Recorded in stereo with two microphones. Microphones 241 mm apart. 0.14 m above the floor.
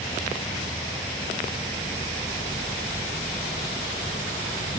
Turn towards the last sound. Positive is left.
turn(degrees=20)  # may be behind; listen again after turning